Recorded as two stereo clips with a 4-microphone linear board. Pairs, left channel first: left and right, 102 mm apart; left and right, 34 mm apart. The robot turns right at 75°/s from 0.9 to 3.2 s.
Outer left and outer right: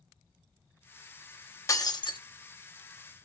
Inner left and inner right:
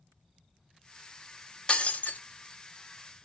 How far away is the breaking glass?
About 0.7 m.